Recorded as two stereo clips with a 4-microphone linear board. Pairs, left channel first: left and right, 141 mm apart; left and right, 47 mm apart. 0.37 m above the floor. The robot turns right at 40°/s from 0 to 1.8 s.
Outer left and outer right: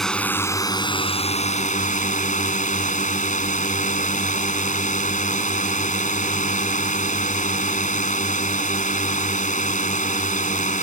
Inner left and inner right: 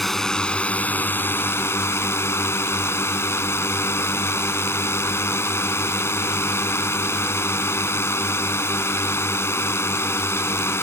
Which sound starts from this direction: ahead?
A drone, at 0.0 s.